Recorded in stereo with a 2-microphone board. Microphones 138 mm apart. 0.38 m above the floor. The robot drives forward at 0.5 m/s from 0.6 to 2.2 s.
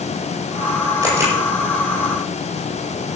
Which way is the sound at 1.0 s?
20° right (ahead or behind).